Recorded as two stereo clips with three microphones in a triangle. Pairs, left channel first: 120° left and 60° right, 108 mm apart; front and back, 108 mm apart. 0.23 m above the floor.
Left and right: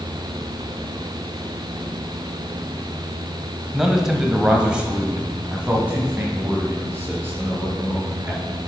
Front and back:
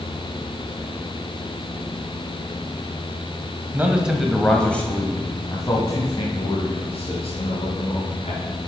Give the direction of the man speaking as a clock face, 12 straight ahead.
5 o'clock.